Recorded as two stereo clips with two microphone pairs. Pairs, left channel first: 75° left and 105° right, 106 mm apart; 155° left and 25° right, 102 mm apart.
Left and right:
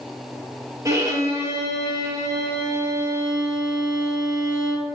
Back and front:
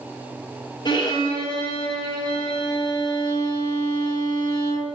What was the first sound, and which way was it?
A violin, 165° right.